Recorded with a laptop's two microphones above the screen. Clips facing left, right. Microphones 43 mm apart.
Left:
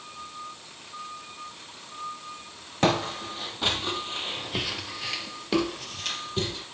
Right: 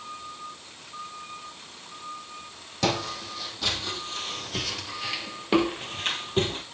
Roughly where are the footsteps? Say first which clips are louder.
Left 3 dB; left.